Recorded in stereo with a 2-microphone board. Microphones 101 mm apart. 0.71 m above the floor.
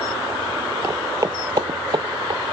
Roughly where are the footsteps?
Right.